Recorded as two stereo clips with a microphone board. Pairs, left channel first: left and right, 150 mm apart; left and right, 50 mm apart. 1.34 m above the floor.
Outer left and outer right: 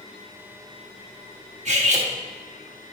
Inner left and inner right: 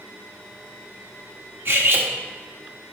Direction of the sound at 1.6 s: 50° right (ahead or behind).